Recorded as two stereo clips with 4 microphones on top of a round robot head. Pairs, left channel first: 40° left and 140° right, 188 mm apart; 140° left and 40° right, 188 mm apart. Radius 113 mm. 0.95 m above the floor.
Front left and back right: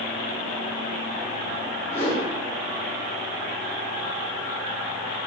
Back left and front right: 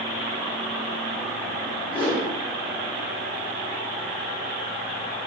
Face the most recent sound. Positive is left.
turn(degrees=85)